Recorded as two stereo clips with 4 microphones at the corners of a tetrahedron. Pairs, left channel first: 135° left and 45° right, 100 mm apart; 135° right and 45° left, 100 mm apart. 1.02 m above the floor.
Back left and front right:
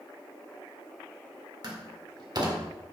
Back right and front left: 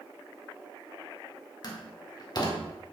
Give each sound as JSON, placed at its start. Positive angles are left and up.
{"t": 1.6, "sound": "a door slam", "azimuth_deg": -90, "distance_m": 1.9}